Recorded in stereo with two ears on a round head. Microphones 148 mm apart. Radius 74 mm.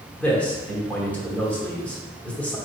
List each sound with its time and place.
0.2 s a man speaking: 10° left (ahead or behind), 1.0 m